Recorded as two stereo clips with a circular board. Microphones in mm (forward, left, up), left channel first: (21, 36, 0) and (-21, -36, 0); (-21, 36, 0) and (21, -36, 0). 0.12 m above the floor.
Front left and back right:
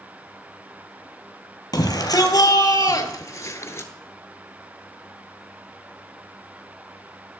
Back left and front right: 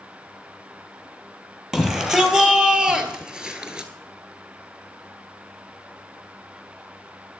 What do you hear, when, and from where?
1.7 s a shout: 25° left, 2.5 m; by 3.9 s 15° left, 1.5 m